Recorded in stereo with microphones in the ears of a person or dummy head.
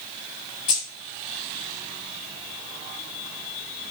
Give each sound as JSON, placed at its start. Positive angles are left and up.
{"t": 0.7, "sound": "keys jangling", "side_deg": 25, "distance_m": 0.7}